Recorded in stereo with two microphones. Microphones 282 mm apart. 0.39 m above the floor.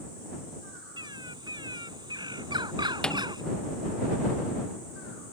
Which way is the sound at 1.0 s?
15° right (ahead or behind).